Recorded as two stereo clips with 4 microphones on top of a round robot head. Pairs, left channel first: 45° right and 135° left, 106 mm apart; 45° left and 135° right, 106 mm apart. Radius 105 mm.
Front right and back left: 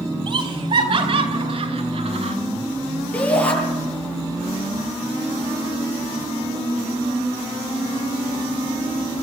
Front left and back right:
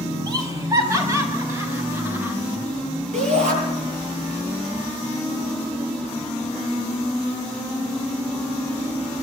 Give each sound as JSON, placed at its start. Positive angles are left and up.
{"t": 0.3, "sound": "laughter", "azimuth_deg": 175, "distance_m": 4.0}
{"t": 3.1, "sound": "a shout", "azimuth_deg": -125, "distance_m": 9.5}